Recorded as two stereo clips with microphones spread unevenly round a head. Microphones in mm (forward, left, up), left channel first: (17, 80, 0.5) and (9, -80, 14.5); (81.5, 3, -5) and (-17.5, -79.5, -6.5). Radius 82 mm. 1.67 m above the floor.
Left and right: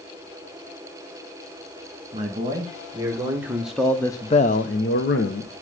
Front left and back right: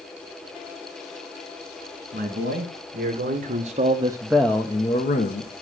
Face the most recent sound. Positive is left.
turn(degrees=60)